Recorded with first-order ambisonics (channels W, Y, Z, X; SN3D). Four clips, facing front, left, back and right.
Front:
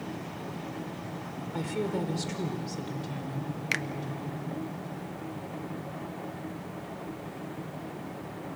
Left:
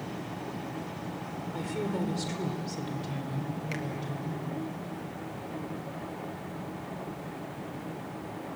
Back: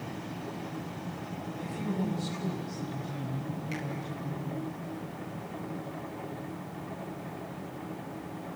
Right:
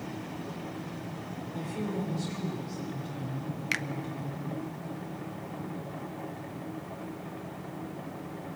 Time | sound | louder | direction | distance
1.5 | a woman speaking | left 2 dB, front 4 dB | 20° left | 3.5 m
3.7 | a finger snap | right 8 dB, front 10 dB | 35° right | 0.7 m